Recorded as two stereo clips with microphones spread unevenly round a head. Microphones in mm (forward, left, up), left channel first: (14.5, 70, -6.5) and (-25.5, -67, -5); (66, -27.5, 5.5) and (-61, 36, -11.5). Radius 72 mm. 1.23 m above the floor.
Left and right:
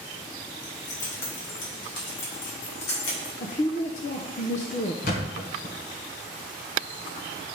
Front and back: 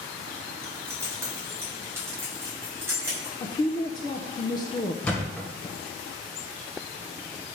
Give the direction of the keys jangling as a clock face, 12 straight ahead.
9 o'clock.